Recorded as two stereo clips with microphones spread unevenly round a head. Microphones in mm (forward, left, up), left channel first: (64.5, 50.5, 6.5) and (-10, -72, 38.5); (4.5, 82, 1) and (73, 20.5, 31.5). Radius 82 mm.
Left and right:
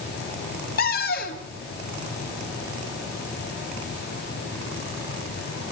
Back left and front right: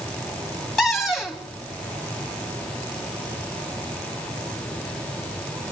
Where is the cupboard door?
50° left, 2.5 m.